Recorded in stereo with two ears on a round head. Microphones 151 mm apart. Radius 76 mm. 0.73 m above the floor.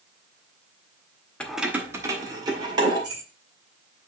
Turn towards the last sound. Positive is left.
turn(degrees=-30)  # may be behind; listen again after turning